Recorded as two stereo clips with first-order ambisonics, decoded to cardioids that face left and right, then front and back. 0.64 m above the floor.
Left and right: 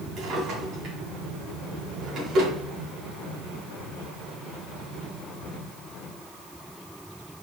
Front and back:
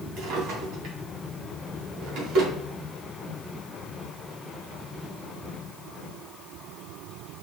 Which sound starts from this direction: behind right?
A drawer, at 0.2 s.